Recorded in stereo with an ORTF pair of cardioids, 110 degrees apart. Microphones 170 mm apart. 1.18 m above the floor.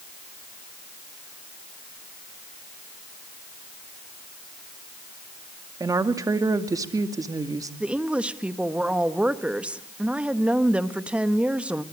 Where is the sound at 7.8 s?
5° right, 1.4 m.